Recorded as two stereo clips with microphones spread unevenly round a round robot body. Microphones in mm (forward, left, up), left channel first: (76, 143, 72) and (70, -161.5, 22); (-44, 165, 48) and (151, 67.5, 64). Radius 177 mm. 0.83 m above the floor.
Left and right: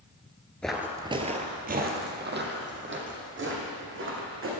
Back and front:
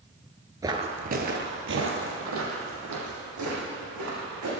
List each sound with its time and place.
0.6 s footsteps: 25° left, 0.9 m; by 4.5 s 40° right, 4 m